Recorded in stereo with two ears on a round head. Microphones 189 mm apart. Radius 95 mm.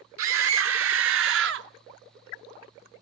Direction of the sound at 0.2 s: 70° right (ahead or behind).